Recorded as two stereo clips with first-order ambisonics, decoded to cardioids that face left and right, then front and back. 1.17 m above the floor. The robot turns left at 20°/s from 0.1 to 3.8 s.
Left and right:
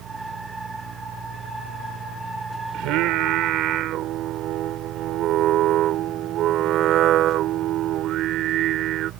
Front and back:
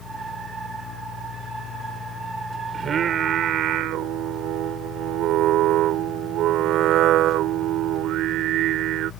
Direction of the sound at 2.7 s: 115° right.